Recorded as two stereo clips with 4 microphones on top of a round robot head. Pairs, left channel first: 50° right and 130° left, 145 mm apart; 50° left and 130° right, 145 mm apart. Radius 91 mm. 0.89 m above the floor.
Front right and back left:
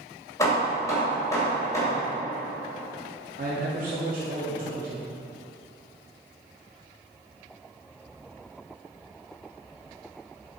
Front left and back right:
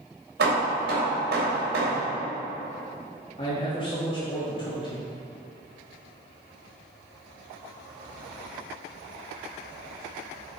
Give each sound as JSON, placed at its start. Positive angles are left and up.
{"t": 0.4, "sound": "hammering", "azimuth_deg": -120, "distance_m": 2.5}
{"t": 3.4, "sound": "a man speaking", "azimuth_deg": 105, "distance_m": 1.5}